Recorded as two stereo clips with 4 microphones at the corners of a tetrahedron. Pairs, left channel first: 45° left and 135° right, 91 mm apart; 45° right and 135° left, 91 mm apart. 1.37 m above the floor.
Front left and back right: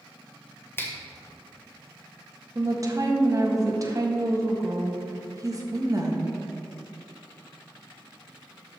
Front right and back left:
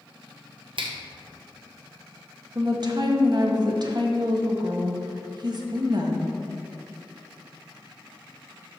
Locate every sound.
0.8 s a finger snap: 110° left, 1.3 m
2.5 s a woman speaking: 175° left, 1.4 m